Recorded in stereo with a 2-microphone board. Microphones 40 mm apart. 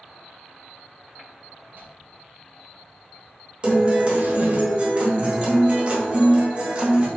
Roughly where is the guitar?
Right.